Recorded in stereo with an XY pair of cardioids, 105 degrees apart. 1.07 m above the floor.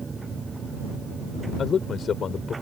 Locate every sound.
0.0 s a machine running: 25° right
1.6 s a man speaking: 50° left